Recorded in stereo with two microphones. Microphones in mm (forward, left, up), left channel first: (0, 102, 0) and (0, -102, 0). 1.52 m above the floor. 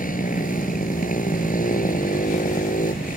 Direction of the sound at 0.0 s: 40° left (ahead or behind).